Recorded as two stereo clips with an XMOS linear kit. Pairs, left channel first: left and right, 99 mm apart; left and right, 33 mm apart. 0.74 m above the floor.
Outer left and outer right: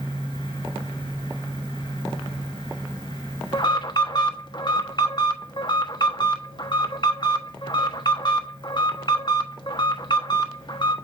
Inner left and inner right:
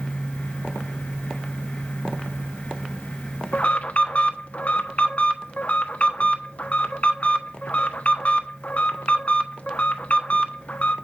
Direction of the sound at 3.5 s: 45° left (ahead or behind).